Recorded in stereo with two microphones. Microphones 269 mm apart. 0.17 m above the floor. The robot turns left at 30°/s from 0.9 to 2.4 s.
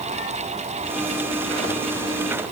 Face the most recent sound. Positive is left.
No sound to turn to.